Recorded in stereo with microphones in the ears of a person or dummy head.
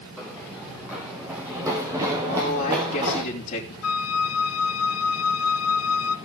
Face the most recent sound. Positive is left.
turn(degrees=70)  # may be behind; listen again after turning